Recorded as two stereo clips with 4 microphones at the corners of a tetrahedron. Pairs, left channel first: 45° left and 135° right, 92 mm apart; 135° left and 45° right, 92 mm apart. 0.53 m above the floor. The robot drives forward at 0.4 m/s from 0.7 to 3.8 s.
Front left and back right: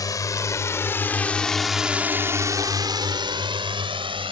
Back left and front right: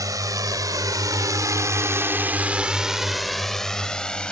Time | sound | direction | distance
0.0 | a drone | straight ahead | ?